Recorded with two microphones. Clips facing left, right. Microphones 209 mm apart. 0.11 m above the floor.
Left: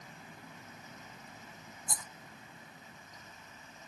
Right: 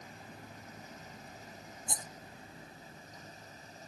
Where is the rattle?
25° right (ahead or behind).